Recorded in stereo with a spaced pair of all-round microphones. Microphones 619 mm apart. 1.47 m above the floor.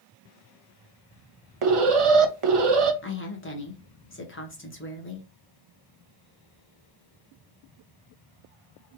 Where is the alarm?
55° right (ahead or behind), 0.6 m.